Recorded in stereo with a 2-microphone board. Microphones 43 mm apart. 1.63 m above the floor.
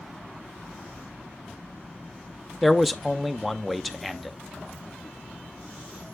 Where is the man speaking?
Centre (ahead or behind), 0.5 m.